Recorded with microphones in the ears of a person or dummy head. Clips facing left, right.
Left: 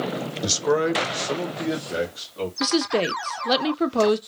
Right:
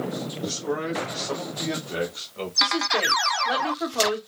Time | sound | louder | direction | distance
0.4 | a man speaking | left 8 dB | 80° left | 0.9 m
2.6 | a woman speaking | left 6 dB | 60° left (ahead or behind) | 0.5 m